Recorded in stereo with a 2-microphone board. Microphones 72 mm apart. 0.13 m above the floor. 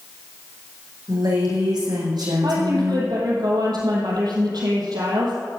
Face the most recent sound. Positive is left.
turn(degrees=-70)  # may be behind; listen again after turning